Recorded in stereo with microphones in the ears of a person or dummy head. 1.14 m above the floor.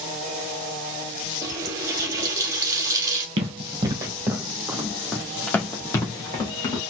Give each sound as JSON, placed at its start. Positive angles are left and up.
{"t": 1.4, "sound": "a running tap", "side_deg": -15, "distance_m": 1.1}
{"t": 3.4, "sound": "running footsteps", "side_deg": -30, "distance_m": 1.4}